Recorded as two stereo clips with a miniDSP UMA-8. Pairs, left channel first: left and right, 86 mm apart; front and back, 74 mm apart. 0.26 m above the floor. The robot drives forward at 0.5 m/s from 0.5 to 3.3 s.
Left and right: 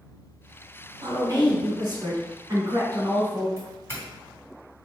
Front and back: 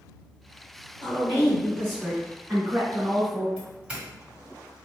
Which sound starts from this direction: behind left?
A doorbell, at 3.6 s.